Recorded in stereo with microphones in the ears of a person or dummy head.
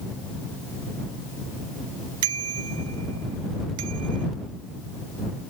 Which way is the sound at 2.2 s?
90° right.